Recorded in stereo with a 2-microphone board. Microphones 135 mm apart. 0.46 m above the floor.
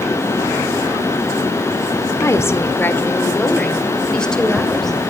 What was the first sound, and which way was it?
A woman speaking, 20° left (ahead or behind).